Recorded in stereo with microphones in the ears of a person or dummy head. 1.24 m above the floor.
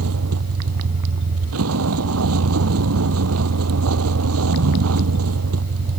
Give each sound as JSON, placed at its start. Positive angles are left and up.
{"t": 0.0, "sound": "a vehicle", "side_deg": -85}